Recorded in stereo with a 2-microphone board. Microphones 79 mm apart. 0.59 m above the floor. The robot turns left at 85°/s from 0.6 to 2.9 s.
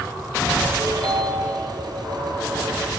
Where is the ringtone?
45° right, 2 m; by 1.5 s 110° right, 2 m.